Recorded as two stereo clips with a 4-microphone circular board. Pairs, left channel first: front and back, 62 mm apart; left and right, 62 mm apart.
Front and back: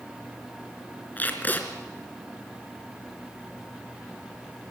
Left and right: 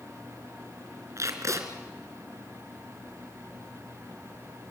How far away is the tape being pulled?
About 2.5 m.